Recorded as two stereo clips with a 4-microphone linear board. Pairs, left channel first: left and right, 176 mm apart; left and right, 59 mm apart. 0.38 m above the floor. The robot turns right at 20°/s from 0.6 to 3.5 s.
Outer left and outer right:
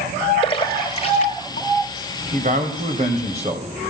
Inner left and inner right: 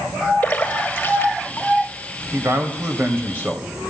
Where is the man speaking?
50° right (ahead or behind), 2 m; by 3.9 s 35° right (ahead or behind), 2 m.